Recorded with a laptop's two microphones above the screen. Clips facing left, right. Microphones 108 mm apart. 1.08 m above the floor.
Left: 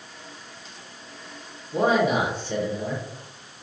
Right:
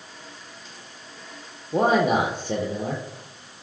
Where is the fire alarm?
I don't hear a fire alarm.